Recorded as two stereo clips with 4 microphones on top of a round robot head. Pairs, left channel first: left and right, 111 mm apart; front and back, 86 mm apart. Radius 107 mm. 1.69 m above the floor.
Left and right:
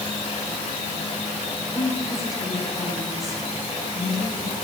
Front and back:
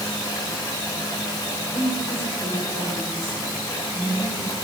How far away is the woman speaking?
About 8 m.